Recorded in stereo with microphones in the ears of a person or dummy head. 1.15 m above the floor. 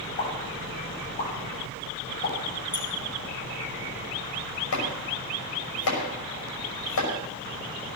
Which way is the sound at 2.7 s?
20° left (ahead or behind).